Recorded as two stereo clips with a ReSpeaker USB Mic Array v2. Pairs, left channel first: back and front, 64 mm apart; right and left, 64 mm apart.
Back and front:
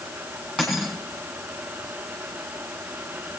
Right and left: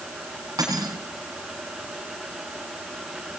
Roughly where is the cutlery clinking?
Left.